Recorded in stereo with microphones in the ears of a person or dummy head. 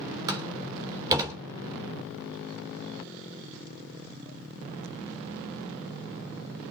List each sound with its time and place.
0.3 s a door slam: 15° right (ahead or behind), 3 m